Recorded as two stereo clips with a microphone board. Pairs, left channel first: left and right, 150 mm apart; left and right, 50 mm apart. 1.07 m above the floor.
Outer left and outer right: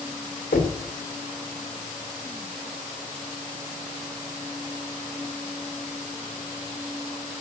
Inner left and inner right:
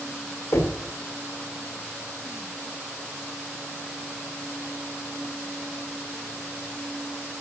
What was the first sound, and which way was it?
Knocking, 85° left.